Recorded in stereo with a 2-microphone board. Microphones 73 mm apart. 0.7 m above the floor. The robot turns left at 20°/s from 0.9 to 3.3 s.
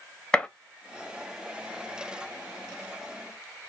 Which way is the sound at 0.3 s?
10° left (ahead or behind).